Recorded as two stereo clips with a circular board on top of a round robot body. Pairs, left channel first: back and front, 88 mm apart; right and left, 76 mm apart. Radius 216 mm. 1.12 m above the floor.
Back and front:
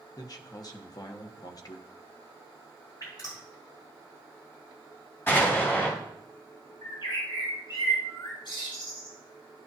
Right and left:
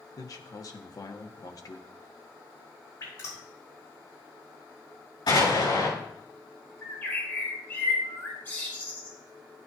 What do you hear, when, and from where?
0.2 s a man speaking: 135° right, 1.1 m
3.0 s dripping: 140° right, 5 m
5.3 s an explosion: 115° right, 5 m
6.8 s a bird: 155° right, 4 m